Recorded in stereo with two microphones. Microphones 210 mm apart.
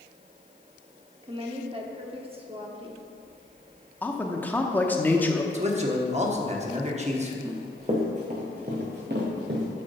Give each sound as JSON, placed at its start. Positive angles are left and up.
{"t": 1.2, "sound": "a woman speaking", "side_deg": -25, "distance_m": 1.0}
{"t": 4.0, "sound": "a man speaking", "side_deg": 10, "distance_m": 0.7}
{"t": 5.5, "sound": "a man speaking", "side_deg": -35, "distance_m": 1.0}
{"t": 7.5, "sound": "running footsteps", "side_deg": -20, "distance_m": 2.0}